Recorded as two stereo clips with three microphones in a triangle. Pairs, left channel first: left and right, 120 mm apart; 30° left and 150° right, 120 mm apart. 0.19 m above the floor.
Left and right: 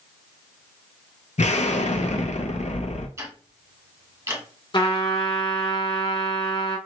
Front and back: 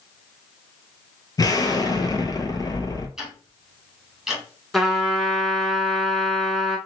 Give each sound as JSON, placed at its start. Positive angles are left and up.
{"t": 1.4, "sound": "an explosion", "azimuth_deg": 85, "distance_m": 0.9}
{"t": 3.2, "sound": "ticking", "azimuth_deg": -70, "distance_m": 1.7}
{"t": 4.7, "sound": "a trumpet", "azimuth_deg": 120, "distance_m": 1.2}